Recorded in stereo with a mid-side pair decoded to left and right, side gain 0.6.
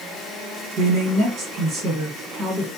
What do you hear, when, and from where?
0.8 s a man speaking: 55° right, 1.5 m